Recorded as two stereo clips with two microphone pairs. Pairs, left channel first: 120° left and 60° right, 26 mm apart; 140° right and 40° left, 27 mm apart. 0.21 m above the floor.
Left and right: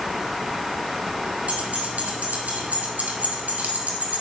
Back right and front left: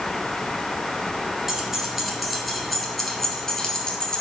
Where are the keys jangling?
35° right, 2.5 m; by 4.2 s 75° right, 2.5 m.